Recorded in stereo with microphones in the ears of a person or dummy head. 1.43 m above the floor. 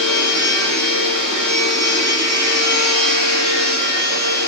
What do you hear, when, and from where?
0.0 s a machine running: 30° left (ahead or behind), 1.1 m